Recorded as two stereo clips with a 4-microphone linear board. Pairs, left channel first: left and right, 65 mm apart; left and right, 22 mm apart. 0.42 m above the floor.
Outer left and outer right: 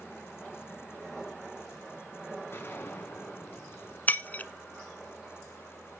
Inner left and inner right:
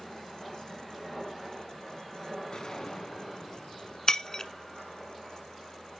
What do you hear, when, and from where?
2.5 s a gunshot: 35° left (ahead or behind), 3.5 m
4.1 s breaking glass: 25° left (ahead or behind), 0.8 m